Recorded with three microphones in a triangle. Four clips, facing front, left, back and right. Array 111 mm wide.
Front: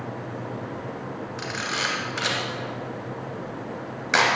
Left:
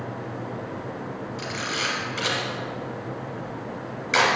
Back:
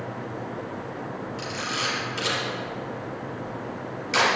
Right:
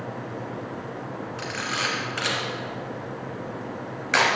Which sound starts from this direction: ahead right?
A camera shutter, at 1.4 s.